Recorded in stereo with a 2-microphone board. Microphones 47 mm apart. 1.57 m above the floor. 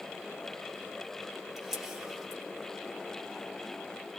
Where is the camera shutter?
10° right (ahead or behind), 2.5 m.